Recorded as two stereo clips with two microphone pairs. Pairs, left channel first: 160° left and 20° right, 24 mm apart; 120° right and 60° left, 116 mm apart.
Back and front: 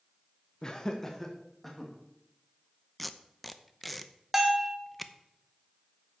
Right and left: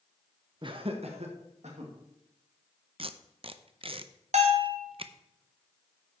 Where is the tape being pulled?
80° left, 0.6 m.